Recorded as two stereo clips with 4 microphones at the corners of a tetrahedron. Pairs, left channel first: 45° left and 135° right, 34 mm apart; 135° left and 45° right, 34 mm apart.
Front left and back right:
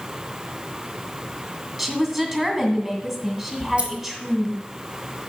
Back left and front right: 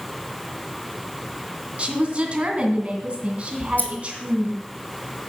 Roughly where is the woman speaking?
Ahead right.